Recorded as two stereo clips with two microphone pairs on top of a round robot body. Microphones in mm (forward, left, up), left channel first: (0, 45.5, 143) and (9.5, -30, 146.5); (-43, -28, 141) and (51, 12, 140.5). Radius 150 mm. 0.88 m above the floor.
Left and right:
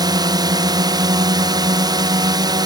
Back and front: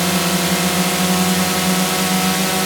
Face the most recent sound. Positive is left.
turn(degrees=-65)